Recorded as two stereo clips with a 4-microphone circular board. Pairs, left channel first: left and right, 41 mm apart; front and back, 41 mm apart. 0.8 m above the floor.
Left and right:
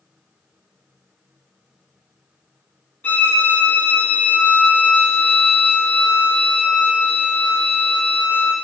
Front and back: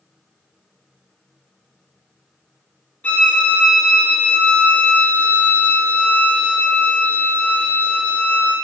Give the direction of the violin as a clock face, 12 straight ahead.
10 o'clock.